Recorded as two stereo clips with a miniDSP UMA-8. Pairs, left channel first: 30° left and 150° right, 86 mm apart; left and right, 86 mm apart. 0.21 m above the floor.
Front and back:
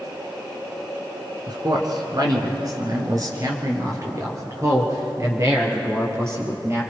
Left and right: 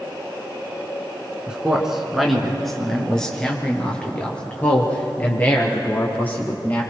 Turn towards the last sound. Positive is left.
turn(degrees=155)